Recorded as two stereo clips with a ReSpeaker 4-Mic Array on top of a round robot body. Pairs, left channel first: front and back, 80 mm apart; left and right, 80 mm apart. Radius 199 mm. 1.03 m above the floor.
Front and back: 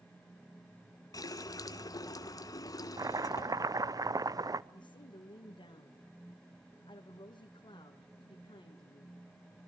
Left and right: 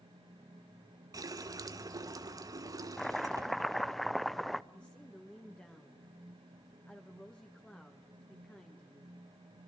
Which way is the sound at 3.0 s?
175° left.